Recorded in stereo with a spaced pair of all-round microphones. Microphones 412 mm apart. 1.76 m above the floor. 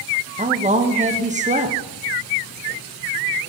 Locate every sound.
0.4 s a woman speaking: 20° right (ahead or behind), 0.6 m